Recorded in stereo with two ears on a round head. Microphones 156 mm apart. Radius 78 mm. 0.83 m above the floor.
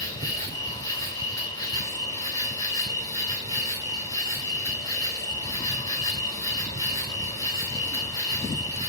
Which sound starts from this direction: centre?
An insect, at 0.0 s.